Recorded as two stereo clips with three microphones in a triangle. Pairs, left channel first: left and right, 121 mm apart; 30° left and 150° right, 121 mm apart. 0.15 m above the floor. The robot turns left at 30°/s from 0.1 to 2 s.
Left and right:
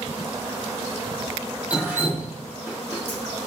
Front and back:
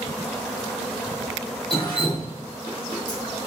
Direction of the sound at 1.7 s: 10° right.